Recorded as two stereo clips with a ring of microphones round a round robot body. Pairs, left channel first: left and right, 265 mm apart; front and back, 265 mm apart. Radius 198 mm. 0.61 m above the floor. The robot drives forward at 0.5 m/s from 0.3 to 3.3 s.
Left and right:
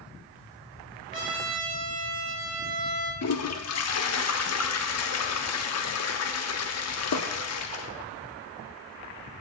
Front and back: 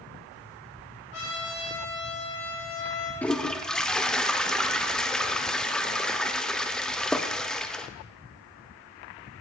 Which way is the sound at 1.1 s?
30° right.